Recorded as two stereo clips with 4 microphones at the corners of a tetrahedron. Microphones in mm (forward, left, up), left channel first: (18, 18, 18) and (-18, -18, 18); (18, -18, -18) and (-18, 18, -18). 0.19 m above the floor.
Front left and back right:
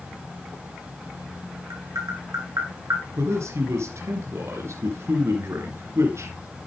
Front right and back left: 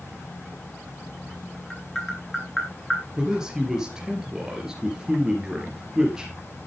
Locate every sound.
1.7 s tapping: 125° right, 5.5 m
3.2 s a man speaking: 150° right, 3 m